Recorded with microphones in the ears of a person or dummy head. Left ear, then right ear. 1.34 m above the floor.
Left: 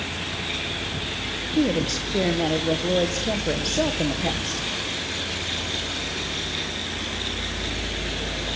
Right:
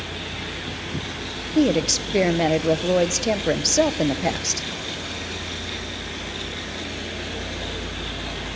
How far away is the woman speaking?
About 1.1 m.